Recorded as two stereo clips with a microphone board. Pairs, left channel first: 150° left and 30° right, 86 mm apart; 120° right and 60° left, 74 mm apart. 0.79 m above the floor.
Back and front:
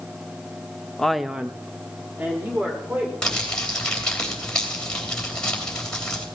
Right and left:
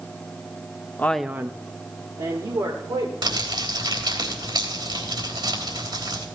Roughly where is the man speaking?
Behind right.